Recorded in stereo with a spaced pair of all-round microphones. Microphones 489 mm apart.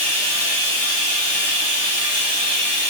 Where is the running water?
60° left (ahead or behind), 0.7 m.